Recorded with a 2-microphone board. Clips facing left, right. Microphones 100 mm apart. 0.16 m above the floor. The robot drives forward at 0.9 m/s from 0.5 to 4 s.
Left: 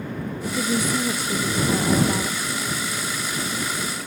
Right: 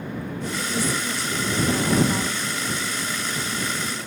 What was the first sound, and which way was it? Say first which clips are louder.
A woman speaking: left 3 dB; 60° left (ahead or behind).